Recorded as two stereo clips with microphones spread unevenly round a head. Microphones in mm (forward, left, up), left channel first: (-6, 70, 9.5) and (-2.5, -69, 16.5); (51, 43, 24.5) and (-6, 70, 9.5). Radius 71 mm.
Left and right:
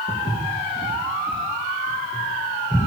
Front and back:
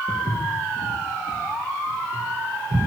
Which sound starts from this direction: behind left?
Footsteps, at 0.1 s.